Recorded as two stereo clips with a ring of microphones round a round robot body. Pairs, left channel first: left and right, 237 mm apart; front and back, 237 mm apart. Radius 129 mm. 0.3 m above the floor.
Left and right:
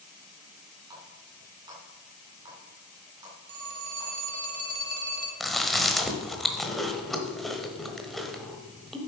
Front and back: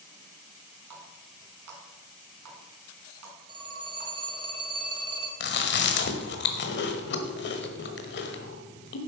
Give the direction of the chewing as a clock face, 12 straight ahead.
12 o'clock.